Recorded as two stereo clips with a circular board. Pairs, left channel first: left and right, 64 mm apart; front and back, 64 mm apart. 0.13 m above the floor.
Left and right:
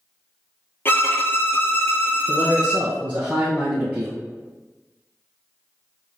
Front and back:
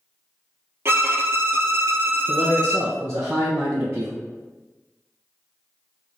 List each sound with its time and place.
0.8 s a violin: 140° left, 1.0 m
2.3 s a man speaking: 160° right, 1.8 m